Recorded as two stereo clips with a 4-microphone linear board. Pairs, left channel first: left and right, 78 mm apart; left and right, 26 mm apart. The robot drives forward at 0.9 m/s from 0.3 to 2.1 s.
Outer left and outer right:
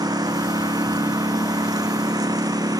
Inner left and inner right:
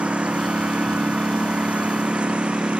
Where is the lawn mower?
60° right (ahead or behind).